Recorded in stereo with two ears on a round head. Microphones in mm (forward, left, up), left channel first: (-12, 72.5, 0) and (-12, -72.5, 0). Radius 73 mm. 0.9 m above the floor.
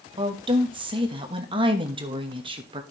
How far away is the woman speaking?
About 1.2 m.